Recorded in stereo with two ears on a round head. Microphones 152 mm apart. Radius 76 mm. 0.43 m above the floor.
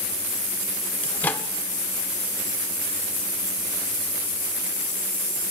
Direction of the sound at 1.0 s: 10° left (ahead or behind).